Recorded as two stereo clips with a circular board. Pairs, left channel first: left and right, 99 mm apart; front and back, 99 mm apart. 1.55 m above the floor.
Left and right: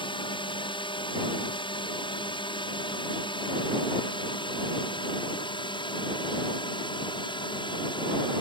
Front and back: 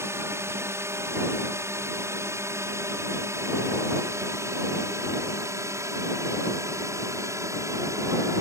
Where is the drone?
120° left.